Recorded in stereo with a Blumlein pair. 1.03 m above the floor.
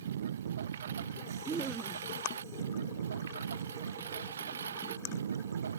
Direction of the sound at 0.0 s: 65° right.